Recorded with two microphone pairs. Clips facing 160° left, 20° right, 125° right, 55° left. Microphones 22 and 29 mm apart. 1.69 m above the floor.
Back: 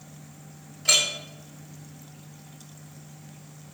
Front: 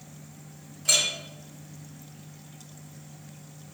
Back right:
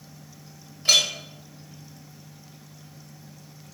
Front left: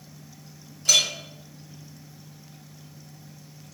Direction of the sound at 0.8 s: 150° right.